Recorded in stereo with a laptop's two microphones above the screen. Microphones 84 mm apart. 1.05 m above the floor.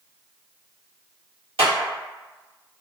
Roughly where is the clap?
Right.